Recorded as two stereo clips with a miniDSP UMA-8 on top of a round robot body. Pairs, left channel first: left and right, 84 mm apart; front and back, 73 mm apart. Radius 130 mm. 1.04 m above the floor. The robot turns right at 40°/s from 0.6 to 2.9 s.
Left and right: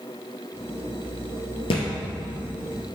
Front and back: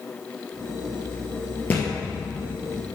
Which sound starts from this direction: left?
A thud, at 1.7 s.